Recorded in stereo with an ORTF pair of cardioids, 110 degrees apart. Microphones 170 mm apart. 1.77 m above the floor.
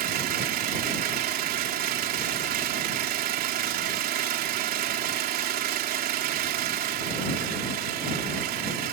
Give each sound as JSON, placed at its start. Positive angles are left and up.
{"t": 0.0, "sound": "an engine running", "azimuth_deg": -65}